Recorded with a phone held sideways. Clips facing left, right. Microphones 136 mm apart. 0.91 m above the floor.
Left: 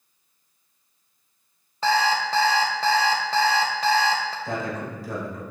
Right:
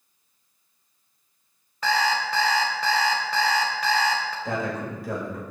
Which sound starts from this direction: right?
A man speaking, at 4.5 s.